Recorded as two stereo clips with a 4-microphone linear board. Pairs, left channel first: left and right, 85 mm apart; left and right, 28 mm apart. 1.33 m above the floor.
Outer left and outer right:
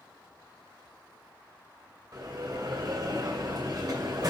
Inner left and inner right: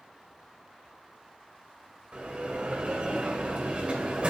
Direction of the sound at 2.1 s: 55° right (ahead or behind).